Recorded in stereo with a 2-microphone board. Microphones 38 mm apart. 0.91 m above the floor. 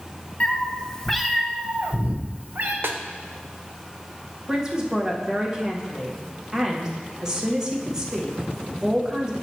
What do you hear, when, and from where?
0.4 s a cat meowing: 40° left (ahead or behind), 1.0 m; by 2.7 s 65° right (ahead or behind), 1.1 m
2.8 s a snare drum: 75° right (ahead or behind), 0.6 m
4.5 s a man speaking: 20° right (ahead or behind), 1.3 m